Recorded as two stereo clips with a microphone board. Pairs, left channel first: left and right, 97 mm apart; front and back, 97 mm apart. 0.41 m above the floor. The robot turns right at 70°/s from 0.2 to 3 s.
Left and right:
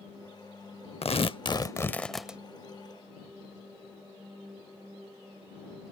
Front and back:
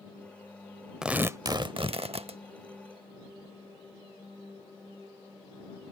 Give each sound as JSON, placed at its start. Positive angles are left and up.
{"t": 1.0, "sound": "tearing paper", "azimuth_deg": 95}